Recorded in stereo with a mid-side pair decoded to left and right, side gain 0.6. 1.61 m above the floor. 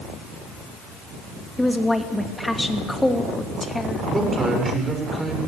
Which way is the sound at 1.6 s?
5° left.